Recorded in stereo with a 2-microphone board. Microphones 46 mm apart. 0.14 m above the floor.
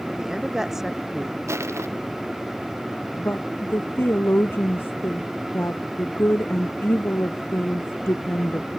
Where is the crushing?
80° right.